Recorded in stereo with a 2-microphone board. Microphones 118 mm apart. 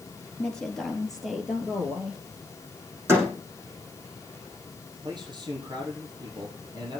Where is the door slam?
20° right (ahead or behind), 7 m.